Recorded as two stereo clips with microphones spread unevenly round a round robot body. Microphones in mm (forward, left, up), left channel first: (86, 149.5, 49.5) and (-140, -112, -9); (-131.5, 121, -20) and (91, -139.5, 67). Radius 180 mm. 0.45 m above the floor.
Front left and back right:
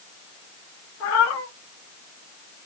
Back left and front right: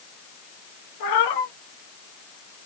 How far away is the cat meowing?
About 1.3 m.